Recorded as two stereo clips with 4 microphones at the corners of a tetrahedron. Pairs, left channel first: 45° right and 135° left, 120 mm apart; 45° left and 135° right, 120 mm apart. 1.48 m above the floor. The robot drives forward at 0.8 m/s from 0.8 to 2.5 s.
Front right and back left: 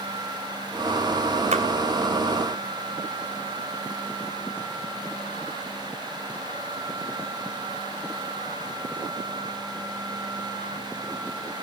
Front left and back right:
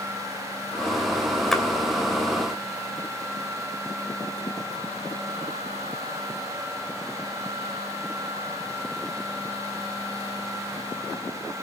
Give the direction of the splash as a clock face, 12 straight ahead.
8 o'clock.